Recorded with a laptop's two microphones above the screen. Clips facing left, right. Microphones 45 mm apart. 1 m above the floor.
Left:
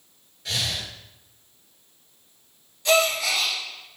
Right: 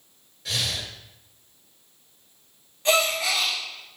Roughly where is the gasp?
Right.